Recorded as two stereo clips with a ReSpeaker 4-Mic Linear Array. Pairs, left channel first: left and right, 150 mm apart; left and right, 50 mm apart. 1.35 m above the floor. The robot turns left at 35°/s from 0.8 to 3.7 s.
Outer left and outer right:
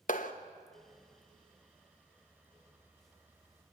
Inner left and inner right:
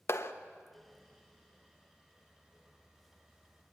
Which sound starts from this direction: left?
A clap, at 0.1 s.